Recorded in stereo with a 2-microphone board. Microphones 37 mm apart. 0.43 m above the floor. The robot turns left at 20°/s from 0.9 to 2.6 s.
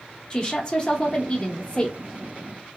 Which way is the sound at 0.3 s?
25° left (ahead or behind).